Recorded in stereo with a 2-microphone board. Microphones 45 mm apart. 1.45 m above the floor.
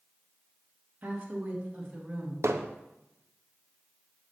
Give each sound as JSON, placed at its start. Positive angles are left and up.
{"t": 1.0, "sound": "a woman speaking", "side_deg": -45, "distance_m": 2.5}
{"t": 2.4, "sound": "hammering", "side_deg": -80, "distance_m": 0.6}